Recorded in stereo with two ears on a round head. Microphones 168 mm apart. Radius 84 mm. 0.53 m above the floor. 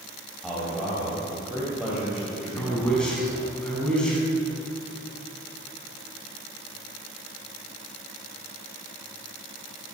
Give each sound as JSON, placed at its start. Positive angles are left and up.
{"t": 0.4, "sound": "a man speaking", "side_deg": 0, "distance_m": 3.5}
{"t": 2.6, "sound": "a man speaking", "side_deg": 5, "distance_m": 5.0}